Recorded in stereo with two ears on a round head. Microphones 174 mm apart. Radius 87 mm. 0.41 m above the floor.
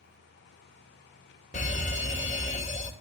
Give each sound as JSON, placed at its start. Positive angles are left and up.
{"t": 1.5, "sound": "a fire alarm", "side_deg": 40, "distance_m": 2.5}